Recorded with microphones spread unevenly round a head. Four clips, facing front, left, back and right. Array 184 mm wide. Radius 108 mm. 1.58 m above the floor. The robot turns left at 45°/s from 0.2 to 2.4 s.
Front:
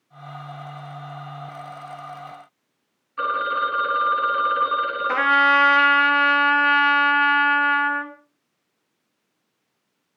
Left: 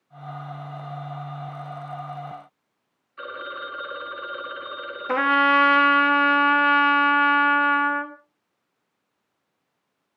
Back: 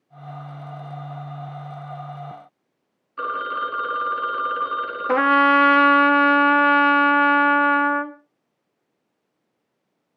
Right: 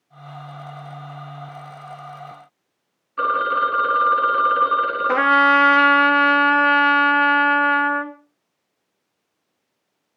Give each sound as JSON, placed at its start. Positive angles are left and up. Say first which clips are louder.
{"t": 3.2, "sound": "a phone ringing", "louder": "right 15 dB, front 3 dB", "azimuth_deg": -90, "distance_m": 1.3}
{"t": 5.1, "sound": "a trumpet", "louder": "right 3 dB, back 3 dB", "azimuth_deg": -160, "distance_m": 1.0}